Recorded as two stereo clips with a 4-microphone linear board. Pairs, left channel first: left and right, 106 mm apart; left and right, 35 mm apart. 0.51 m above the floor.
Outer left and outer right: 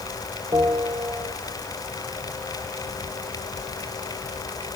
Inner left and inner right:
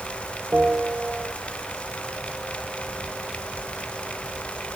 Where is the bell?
30° right (ahead or behind), 1.8 m.